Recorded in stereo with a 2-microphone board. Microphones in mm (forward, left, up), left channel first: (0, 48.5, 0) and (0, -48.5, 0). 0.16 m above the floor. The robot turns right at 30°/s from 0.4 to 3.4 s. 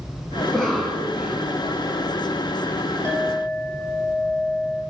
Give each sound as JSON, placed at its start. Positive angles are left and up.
{"t": 0.4, "sound": "a cough", "azimuth_deg": 165, "distance_m": 1.4}
{"t": 3.0, "sound": "a clink", "side_deg": -30, "distance_m": 3.0}